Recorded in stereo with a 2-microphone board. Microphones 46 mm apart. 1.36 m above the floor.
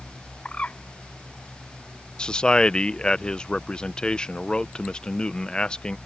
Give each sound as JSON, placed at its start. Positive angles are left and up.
{"t": 0.5, "sound": "a bird", "side_deg": 25}
{"t": 2.2, "sound": "a man speaking", "side_deg": 20}